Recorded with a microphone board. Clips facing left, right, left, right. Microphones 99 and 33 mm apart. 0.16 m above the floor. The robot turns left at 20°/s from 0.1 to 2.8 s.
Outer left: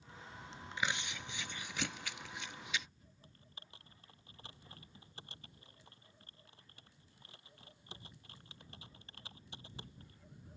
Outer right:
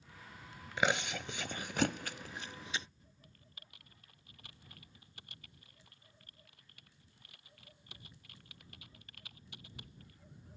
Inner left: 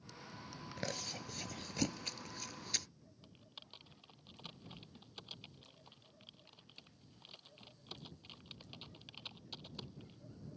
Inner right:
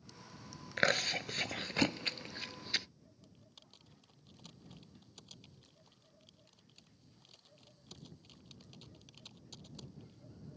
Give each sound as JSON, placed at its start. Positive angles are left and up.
{"t": 0.8, "sound": "chewing", "side_deg": -70}
{"t": 3.2, "sound": "typing on a keyboard", "side_deg": 30}